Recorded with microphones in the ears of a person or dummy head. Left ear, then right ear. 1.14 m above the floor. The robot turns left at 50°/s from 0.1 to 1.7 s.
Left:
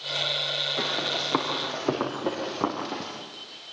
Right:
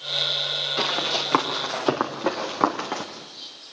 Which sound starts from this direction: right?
Running footsteps, at 0.8 s.